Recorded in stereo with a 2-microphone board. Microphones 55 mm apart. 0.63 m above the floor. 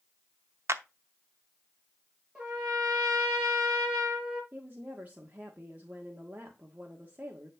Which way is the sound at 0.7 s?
60° right (ahead or behind).